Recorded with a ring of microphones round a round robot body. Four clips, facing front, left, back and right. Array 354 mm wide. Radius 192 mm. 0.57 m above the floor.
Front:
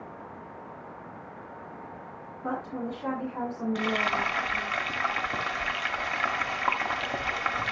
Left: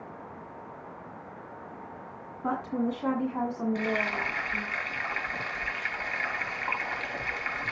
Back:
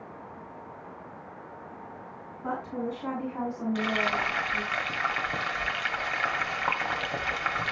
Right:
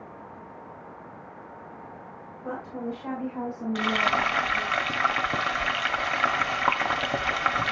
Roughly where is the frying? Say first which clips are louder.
Right 5 dB, even; right.